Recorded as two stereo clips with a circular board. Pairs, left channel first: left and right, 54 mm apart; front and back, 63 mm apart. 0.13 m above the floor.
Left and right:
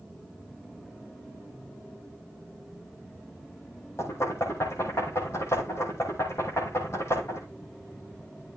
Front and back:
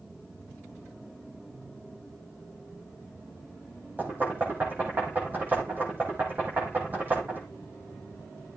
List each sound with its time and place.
4.0 s knocking: 120° left, 5.5 m